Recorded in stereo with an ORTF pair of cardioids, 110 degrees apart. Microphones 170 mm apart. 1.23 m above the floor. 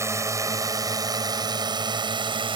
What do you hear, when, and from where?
0.0 s a drone: 15° right; by 2.6 s 30° right